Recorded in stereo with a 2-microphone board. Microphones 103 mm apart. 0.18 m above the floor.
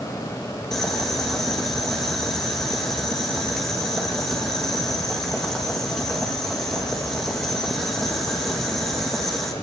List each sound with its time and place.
0.7 s boiling: 5° left (ahead or behind), 5 m